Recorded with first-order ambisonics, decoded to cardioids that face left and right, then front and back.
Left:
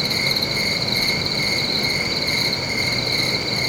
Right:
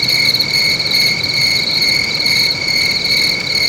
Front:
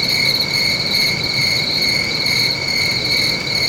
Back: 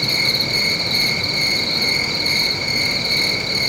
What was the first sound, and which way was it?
An insect, 95° right.